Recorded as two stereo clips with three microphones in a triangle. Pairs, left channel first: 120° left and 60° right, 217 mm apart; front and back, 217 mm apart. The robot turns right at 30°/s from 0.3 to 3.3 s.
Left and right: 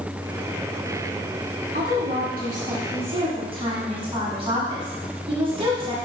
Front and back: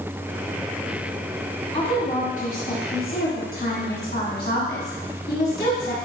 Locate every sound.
1.7 s a woman speaking: 50° right, 1.8 m; by 6.0 s 5° right, 1.8 m